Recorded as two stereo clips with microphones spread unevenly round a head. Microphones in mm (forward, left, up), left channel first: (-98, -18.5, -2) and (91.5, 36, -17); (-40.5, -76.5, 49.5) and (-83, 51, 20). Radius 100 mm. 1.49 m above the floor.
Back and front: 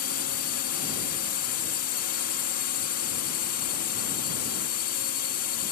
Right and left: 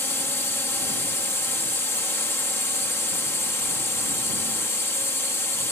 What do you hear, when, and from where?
0.0 s a drone: 145° right